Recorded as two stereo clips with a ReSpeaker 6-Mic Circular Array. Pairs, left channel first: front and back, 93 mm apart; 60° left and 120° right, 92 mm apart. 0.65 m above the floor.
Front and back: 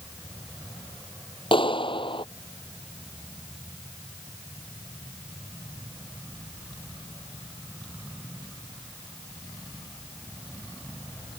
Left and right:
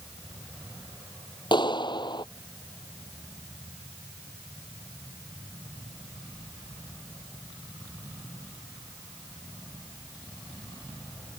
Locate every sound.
1.5 s a clap: 25° left